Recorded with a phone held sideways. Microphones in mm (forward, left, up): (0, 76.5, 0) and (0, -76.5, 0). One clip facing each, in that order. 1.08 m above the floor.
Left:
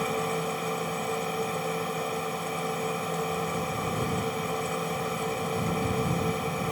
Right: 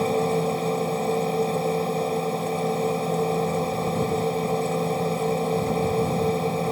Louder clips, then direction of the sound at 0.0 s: Right 7 dB; 30° right (ahead or behind).